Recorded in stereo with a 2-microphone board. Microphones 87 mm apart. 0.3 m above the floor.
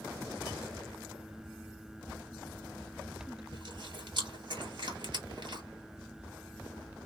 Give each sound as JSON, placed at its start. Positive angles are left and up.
{"t": 3.5, "sound": "chewing", "side_deg": -55, "distance_m": 1.8}